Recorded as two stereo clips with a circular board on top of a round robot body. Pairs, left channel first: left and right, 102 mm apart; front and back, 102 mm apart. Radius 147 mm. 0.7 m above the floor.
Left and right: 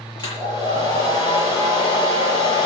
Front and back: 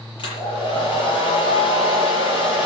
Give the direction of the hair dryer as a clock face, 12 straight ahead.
11 o'clock.